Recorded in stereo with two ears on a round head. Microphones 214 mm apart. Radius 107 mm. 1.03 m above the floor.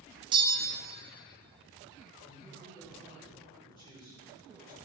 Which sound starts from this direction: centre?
A bell, at 0.3 s.